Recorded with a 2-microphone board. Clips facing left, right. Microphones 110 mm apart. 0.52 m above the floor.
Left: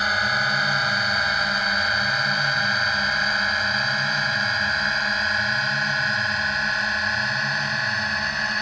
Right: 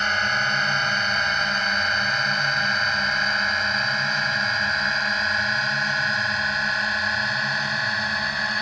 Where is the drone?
5° left (ahead or behind); by 8.6 s centre (ahead or behind).